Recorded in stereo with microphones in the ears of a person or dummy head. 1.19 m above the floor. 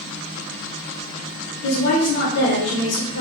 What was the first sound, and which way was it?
A woman speaking, 60° left (ahead or behind).